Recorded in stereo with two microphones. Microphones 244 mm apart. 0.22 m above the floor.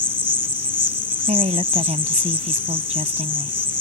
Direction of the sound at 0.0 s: 50° left (ahead or behind).